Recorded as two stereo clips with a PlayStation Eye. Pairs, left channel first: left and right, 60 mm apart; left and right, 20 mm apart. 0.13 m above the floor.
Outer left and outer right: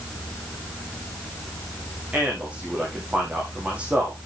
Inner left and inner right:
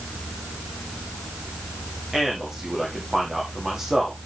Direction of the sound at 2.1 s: 20° right (ahead or behind).